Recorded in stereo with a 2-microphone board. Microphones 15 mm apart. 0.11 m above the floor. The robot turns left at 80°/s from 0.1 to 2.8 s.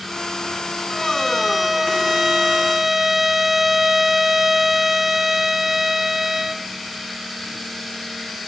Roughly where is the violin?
Centre.